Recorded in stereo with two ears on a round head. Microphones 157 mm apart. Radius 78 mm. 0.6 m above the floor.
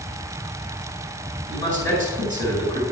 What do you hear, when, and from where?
1.5 s a man speaking: 20° left (ahead or behind), 4.5 m